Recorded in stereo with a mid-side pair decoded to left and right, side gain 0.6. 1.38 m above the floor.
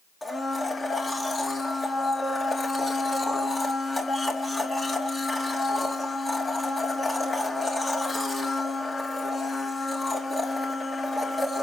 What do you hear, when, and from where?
0.2 s a blender: 20° left, 2 m